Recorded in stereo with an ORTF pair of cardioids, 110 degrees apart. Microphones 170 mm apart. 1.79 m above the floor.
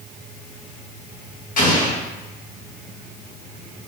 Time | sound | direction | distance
1.6 | an explosion | 55° left | 1.2 m